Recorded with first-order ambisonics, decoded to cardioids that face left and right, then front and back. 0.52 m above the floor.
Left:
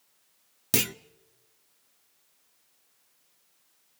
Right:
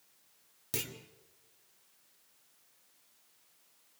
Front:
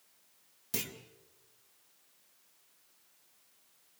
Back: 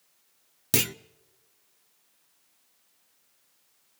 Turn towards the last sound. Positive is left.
turn(degrees=145)